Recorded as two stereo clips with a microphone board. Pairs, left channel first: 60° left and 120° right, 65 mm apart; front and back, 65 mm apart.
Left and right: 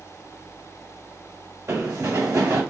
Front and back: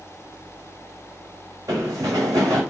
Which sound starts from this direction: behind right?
Running footsteps, at 1.7 s.